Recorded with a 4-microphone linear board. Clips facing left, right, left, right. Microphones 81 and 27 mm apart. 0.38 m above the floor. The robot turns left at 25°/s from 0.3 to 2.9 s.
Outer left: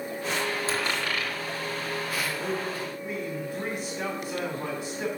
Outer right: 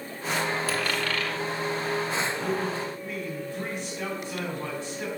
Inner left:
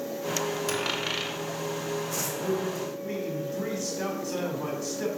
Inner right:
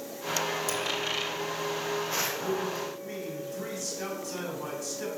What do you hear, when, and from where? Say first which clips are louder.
0.7 s a dropped coin: outer right 1 dB, inner left 1 dB; 25° left (ahead or behind), 1.8 m; by 1.4 s 10° left (ahead or behind), 1.8 m
2.1 s a man speaking: outer right 2 dB, inner left 1 dB; 35° left (ahead or behind), 3 m; by 5.1 s 20° left (ahead or behind), 3 m